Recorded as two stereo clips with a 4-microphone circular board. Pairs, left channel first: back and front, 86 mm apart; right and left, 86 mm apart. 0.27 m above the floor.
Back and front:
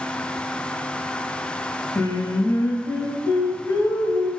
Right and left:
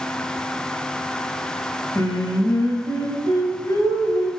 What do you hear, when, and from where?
1.9 s singing: 125° right, 1.5 m